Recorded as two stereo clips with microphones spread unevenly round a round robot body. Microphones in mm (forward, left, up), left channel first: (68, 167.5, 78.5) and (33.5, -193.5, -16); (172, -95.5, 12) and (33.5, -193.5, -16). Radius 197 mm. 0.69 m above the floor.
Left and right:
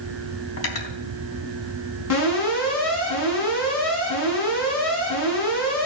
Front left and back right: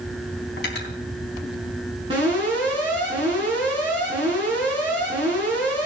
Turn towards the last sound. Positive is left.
turn(degrees=140)